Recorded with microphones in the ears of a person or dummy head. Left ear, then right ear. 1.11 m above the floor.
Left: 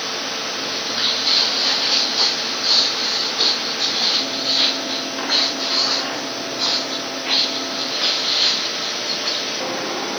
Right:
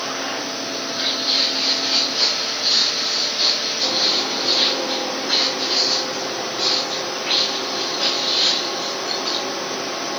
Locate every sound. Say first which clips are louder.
0.7 s footsteps: left 3 dB; 60° left (ahead or behind), 2.5 m; by 9.4 s 10° left (ahead or behind), 5 m